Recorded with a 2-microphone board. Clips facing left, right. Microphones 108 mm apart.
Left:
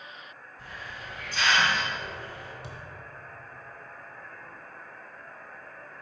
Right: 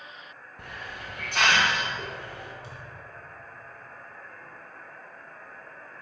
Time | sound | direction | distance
0.6 | a hiss | 65° right (ahead or behind) | 0.7 m
2.6 | a thud | 65° left (ahead or behind) | 0.8 m